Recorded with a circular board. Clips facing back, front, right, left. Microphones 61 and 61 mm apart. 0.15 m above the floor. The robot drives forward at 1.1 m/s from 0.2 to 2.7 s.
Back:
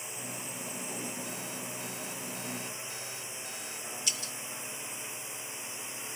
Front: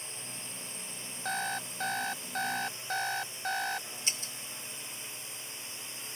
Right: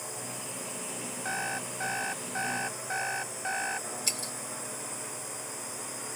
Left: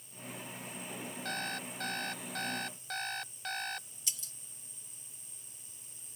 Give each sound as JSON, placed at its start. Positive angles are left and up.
{"t": 0.0, "sound": "a drone", "azimuth_deg": -105}
{"t": 1.2, "sound": "an alarm clock", "azimuth_deg": -20}
{"t": 4.1, "sound": "breaking glass", "azimuth_deg": -55}